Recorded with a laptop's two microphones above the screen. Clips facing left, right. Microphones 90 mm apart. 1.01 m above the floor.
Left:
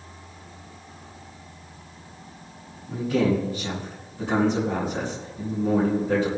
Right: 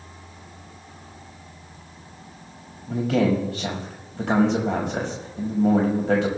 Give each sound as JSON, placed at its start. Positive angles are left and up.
{"t": 2.9, "sound": "a man speaking", "side_deg": -85, "distance_m": 5.5}